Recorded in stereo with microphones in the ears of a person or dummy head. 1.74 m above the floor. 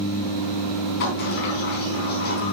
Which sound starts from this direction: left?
A sliding door, at 1.0 s.